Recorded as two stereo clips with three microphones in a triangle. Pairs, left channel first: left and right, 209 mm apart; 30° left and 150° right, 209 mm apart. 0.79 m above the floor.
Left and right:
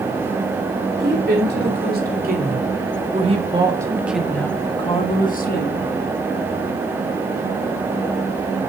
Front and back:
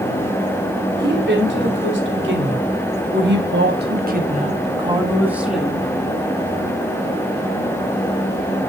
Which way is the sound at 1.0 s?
125° right.